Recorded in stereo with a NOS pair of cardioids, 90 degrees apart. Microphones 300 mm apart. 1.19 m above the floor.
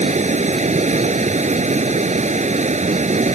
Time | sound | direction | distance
0.0 | running water | 25° right | ?